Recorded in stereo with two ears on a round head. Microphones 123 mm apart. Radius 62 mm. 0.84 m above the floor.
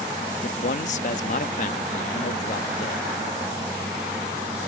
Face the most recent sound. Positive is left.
turn(degrees=60)  # may be behind; listen again after turning